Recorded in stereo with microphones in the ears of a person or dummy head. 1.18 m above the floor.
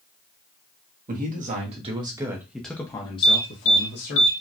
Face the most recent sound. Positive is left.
turn(degrees=65)  # may be behind; listen again after turning